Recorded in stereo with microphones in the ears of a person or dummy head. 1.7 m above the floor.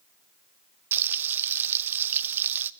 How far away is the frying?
About 0.5 m.